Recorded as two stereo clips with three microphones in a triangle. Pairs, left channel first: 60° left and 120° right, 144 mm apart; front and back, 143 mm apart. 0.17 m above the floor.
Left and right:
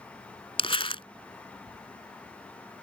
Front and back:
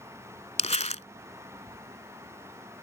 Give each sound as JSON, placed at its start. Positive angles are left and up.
{"t": 0.6, "sound": "crumpling", "azimuth_deg": 20}